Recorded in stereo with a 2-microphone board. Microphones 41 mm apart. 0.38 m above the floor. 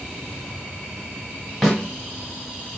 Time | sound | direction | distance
1.6 | a snare drum | 10° right (ahead or behind) | 2 m